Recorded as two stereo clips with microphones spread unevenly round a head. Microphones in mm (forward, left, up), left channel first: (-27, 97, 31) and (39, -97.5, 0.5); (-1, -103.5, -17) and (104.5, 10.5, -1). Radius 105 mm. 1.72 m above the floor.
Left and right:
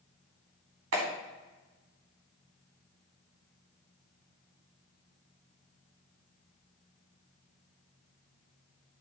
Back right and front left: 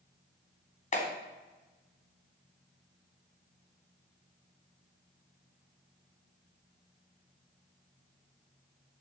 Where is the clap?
90° right, 3.5 m.